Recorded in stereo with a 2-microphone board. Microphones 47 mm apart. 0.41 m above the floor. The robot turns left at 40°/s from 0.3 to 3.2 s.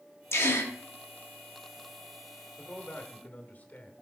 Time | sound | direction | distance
0.3 | a gasp | 60° left (ahead or behind) | 1.1 m
2.6 | a man speaking | 20° left (ahead or behind) | 1.0 m